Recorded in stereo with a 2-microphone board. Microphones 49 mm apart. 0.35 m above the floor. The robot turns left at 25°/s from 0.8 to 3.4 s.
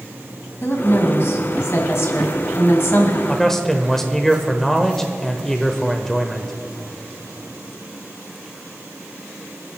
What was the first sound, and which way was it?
A woman speaking, 120° left.